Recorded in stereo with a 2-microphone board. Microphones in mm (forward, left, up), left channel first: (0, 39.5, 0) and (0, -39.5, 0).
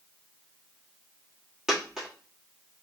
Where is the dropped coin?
10° right (ahead or behind), 1.9 m.